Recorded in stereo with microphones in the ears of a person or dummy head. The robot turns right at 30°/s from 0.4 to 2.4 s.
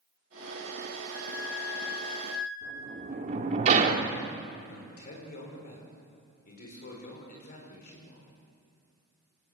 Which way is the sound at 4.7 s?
50° left (ahead or behind).